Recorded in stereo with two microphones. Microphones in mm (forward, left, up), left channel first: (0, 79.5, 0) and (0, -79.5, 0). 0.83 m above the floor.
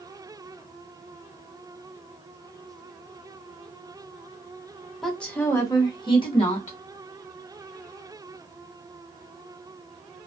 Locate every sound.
5.0 s a woman speaking: centre (ahead or behind), 0.9 m; by 6.8 s 45° left (ahead or behind), 1.3 m